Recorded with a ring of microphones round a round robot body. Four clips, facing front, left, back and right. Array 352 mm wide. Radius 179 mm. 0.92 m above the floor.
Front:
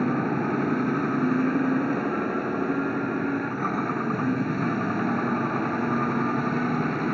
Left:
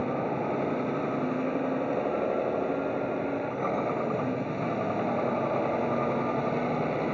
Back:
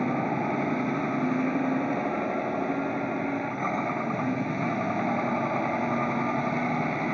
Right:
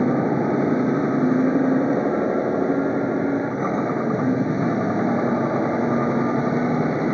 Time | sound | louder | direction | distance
0.0 | a vehicle | right 9 dB, front 2 dB | 75° right | ?